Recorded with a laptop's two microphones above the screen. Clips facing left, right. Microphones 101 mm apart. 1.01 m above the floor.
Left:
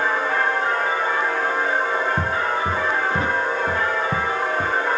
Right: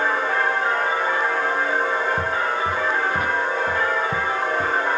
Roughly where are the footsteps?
Left.